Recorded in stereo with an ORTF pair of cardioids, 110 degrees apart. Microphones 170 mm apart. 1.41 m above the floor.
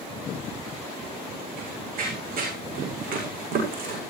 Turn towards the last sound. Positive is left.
turn(degrees=-60)